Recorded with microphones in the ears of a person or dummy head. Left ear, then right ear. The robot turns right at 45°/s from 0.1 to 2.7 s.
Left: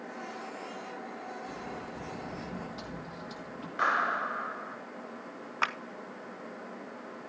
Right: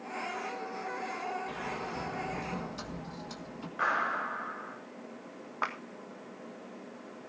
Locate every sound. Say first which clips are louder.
1.5 s a sliding door: right 3 dB; 60° right, 1.6 m; by 3.7 s 5° right, 1.6 m
3.8 s a clap: left 2 dB; 45° left (ahead or behind), 5 m
5.6 s a clap: left 3 dB; 85° left, 1.4 m